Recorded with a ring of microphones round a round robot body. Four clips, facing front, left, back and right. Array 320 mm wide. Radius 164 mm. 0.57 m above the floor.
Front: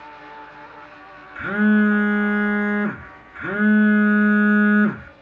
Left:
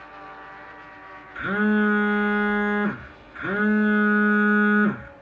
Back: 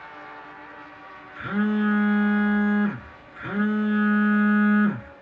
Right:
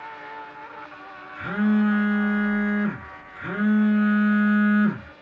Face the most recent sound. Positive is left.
turn(degrees=30)